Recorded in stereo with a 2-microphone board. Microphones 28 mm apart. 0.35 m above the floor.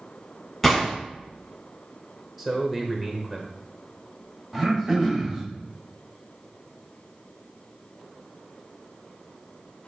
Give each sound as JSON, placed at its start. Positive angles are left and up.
{"t": 0.6, "sound": "a gunshot", "side_deg": 5, "distance_m": 2.0}
{"t": 2.4, "sound": "a man speaking", "side_deg": -10, "distance_m": 0.9}
{"t": 4.5, "sound": "throat clearing", "side_deg": -10, "distance_m": 1.4}